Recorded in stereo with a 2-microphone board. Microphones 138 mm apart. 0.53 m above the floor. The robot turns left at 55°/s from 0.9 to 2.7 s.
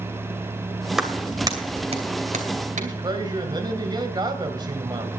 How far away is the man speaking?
About 2.5 m.